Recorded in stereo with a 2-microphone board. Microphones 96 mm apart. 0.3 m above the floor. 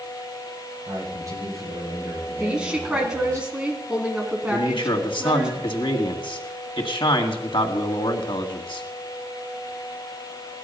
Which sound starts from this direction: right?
A man speaking, at 0.8 s.